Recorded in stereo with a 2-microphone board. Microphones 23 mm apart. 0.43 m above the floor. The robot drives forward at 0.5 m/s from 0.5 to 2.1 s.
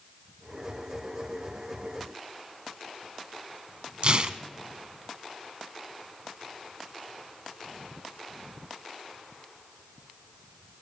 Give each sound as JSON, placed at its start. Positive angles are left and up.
{"t": 4.0, "sound": "tearing paper", "side_deg": -50, "distance_m": 0.6}